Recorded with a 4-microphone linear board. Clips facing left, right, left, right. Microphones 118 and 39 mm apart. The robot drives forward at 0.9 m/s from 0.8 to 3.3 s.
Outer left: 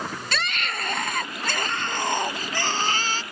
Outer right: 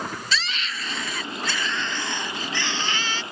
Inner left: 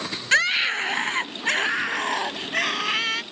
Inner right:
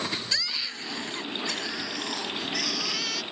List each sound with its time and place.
0.3 s a scream: 55° left (ahead or behind); by 3.2 s 40° left (ahead or behind)